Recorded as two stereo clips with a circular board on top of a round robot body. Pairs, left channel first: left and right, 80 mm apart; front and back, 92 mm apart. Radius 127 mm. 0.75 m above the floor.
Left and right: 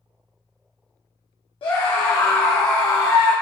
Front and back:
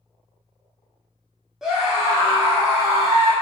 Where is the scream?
95° left, 1.5 m; by 3.3 s 130° left, 3 m.